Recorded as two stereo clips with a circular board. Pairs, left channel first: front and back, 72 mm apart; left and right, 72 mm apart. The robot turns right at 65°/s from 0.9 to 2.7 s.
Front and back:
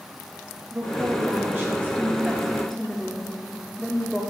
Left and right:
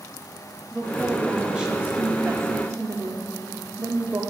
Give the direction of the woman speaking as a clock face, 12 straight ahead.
7 o'clock.